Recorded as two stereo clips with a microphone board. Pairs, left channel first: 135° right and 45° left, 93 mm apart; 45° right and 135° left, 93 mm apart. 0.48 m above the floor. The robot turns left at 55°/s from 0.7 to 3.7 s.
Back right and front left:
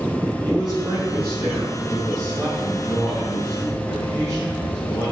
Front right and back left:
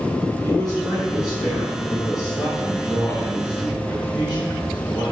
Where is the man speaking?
80° left, 4.5 m; by 5.1 s 85° right, 4.5 m.